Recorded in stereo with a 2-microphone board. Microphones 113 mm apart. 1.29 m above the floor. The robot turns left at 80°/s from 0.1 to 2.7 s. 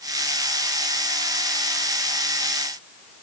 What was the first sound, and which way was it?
Only background noise.